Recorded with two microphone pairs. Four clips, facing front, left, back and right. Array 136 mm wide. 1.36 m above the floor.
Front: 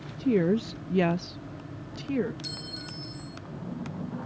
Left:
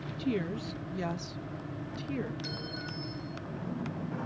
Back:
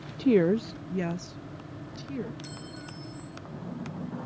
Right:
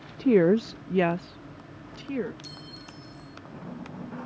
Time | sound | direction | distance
0.2 | a woman speaking | 135° right | ?
2.4 | a clink | 75° left | ?